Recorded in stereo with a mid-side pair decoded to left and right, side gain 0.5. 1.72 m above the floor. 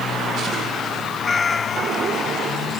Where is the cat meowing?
30° left.